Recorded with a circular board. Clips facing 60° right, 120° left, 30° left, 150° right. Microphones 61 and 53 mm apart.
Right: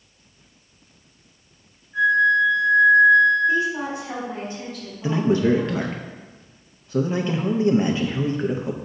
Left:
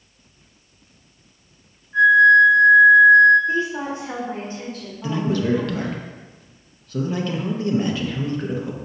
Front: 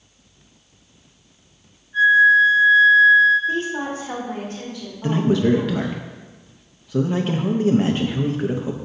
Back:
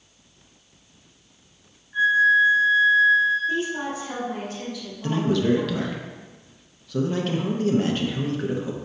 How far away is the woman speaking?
About 1.9 m.